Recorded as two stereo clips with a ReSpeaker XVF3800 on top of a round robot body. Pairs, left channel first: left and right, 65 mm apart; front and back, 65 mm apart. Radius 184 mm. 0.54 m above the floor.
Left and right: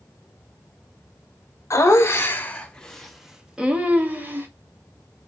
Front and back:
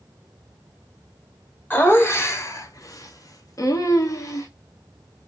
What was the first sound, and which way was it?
Laughter, 55° left.